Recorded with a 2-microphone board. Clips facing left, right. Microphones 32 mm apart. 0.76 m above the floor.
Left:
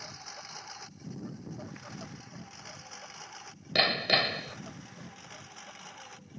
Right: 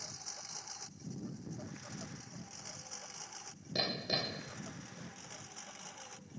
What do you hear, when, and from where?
0.0 s a lawn mower: 30° left (ahead or behind); by 6.4 s 15° left (ahead or behind)
3.8 s hammering: 85° left